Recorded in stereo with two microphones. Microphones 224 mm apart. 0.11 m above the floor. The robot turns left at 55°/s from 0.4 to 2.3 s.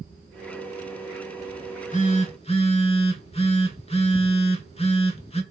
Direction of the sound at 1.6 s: 95° left.